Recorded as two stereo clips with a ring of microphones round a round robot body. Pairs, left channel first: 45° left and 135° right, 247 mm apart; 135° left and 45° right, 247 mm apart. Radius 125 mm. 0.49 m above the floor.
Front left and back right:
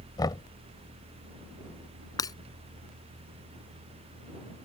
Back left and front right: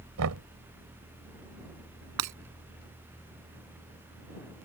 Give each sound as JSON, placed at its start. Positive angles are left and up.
{"t": 0.2, "sound": "knocking", "azimuth_deg": -30}
{"t": 2.2, "sound": "breaking glass", "azimuth_deg": -30}